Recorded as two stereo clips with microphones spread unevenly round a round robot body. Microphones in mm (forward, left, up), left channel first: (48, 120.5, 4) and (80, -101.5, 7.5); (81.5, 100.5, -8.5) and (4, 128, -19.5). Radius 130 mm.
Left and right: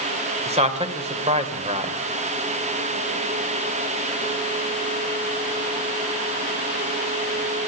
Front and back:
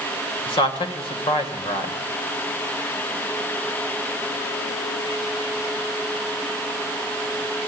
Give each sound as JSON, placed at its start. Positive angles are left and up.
{"t": 0.5, "sound": "a man speaking", "azimuth_deg": -20, "distance_m": 3.0}